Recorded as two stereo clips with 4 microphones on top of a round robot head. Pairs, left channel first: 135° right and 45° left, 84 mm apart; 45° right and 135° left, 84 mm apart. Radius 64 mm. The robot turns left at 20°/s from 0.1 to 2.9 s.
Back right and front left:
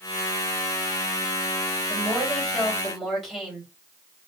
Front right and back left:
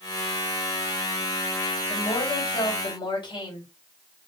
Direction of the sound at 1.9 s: 30° right.